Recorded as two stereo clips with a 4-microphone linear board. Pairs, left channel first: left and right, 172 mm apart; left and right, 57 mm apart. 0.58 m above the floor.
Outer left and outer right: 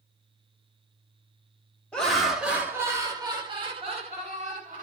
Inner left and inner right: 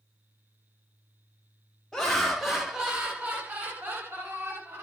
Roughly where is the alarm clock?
No alarm clock in this recording.